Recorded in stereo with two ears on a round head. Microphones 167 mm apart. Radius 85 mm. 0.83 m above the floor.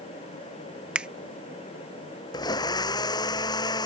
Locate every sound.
0.9 s a finger snap: 5° right (ahead or behind)
2.3 s a blender: 25° left (ahead or behind)